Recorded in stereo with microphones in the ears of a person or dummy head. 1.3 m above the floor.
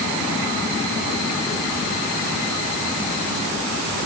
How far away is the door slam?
No door slam in this recording.